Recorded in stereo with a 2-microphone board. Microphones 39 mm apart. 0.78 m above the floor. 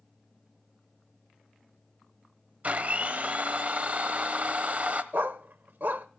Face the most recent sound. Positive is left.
turn(degrees=-60)  # may be behind; listen again after turning